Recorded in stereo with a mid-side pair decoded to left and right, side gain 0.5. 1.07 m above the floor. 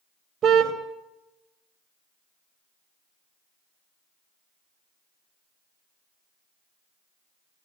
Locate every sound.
0.4 s a car horn: 55° right, 2.5 m